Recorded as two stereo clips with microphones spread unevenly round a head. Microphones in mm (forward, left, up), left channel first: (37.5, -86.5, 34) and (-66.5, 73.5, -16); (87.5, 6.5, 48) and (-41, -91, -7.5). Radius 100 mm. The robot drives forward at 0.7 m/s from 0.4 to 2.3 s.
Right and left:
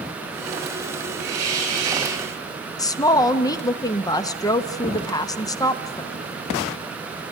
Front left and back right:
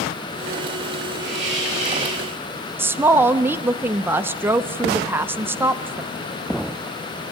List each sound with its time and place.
1.2 s a hiss: 125° left, 6 m; by 2.3 s 130° left, 6.5 m
2.8 s a woman speaking: 140° right, 0.7 m